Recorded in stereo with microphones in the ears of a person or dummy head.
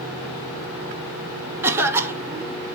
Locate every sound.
1.6 s a cough: 10° right (ahead or behind), 0.7 m